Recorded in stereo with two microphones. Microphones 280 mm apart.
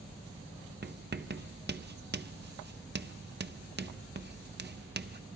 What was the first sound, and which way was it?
Writing, 40° right (ahead or behind).